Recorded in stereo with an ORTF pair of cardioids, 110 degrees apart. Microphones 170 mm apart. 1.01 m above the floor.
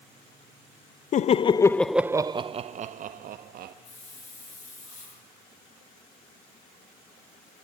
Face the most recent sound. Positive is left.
turn(degrees=50)